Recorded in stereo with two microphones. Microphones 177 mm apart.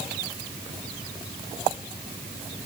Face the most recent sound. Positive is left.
No sound to turn to.